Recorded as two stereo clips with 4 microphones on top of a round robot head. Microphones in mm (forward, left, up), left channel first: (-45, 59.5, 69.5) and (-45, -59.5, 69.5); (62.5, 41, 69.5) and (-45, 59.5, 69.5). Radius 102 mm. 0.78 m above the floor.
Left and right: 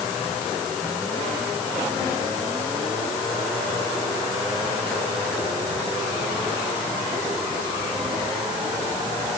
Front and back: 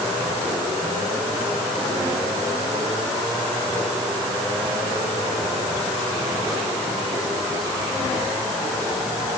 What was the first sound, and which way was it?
Only background noise.